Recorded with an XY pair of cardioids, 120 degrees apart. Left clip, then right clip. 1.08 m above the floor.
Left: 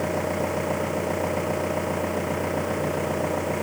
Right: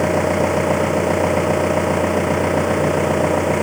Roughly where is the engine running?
Ahead right.